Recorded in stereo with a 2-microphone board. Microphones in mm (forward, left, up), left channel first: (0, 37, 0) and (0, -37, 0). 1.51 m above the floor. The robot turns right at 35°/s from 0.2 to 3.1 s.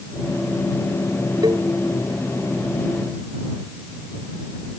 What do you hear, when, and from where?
1.4 s a cowbell: 75° right (ahead or behind); by 1.7 s 85° right